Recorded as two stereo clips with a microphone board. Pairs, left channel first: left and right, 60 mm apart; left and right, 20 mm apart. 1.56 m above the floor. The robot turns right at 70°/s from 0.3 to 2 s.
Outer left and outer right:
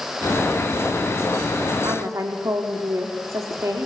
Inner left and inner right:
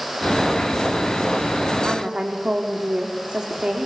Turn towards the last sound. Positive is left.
turn(degrees=-55)  # may be behind; listen again after turning